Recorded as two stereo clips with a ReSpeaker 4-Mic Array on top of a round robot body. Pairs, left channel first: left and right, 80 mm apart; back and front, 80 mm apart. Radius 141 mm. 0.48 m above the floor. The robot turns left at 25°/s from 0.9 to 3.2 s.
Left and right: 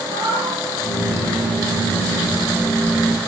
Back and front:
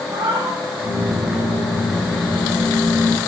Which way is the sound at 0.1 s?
50° right.